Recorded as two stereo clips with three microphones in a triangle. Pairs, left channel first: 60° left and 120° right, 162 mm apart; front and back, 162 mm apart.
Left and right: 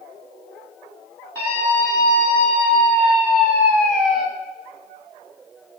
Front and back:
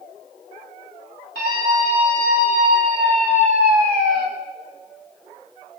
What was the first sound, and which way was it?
A scream, 15° right.